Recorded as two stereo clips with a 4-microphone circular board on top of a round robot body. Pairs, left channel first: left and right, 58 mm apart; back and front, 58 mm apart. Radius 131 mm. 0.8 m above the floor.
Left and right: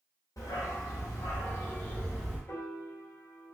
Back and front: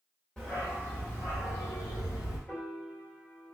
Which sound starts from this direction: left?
A dog barking, at 0.4 s.